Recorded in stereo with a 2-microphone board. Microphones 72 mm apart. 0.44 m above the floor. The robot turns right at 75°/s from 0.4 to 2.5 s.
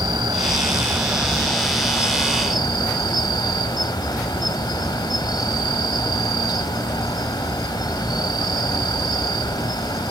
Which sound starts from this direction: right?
An insect, at 0.0 s.